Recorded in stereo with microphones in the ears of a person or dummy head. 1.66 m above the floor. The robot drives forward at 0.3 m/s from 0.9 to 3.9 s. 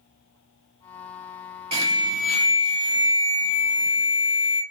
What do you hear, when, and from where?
1.7 s an alarm: 30° right (ahead or behind), 1.1 m; by 4.6 s 45° right (ahead or behind), 0.7 m